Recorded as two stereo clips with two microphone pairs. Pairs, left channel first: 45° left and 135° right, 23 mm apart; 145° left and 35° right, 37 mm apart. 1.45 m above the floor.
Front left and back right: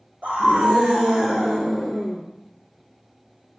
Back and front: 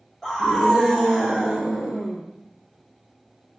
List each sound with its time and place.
0.2 s a scream: 135° right, 1.8 m; by 2.2 s 120° right, 3.5 m